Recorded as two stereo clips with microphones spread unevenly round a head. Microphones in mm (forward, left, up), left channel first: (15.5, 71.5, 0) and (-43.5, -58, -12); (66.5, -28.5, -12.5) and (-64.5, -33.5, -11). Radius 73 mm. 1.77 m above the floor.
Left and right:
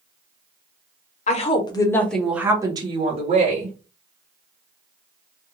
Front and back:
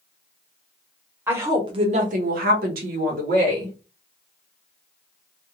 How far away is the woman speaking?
About 0.8 m.